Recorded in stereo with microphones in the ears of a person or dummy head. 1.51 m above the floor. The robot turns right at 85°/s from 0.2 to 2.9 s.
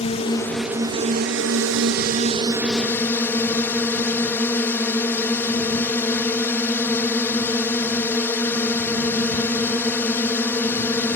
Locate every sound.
0.0 s a drone: 145° left; by 11.2 s 15° left